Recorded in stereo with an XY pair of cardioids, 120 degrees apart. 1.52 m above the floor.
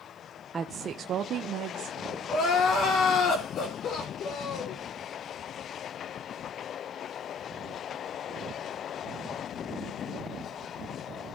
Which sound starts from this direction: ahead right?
A woman speaking, at 0.5 s.